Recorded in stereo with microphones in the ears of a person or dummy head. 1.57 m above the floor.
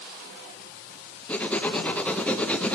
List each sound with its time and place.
1.3 s writing: 15° left (ahead or behind), 0.7 m